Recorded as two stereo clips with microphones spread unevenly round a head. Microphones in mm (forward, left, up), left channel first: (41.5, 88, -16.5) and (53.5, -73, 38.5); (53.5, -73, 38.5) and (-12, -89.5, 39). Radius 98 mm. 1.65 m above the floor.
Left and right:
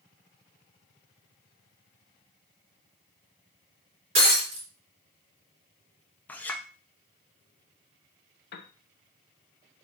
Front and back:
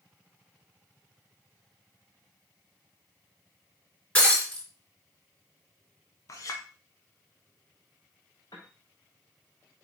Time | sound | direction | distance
4.2 | breaking glass | 55° right | 3.5 m
6.3 | a clink | straight ahead | 1.1 m
8.5 | a piano | 70° left | 0.8 m